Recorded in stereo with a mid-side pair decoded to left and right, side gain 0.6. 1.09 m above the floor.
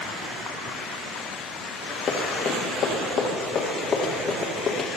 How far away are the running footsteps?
About 4 m.